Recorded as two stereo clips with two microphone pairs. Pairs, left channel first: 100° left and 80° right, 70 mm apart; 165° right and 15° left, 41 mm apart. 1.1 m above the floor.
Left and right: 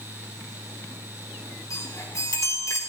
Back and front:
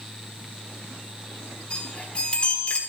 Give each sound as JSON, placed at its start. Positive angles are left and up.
{"t": 1.7, "sound": "a chime", "azimuth_deg": 135, "distance_m": 3.5}